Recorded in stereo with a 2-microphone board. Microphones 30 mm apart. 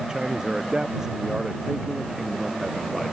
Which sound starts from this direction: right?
A man speaking, at 0.1 s.